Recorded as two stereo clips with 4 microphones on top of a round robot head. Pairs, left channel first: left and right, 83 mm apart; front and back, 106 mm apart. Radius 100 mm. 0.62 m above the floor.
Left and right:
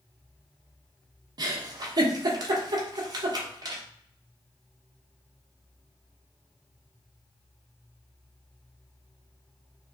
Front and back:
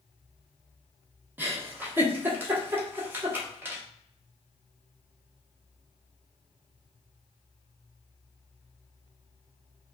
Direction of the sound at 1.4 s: 110° right.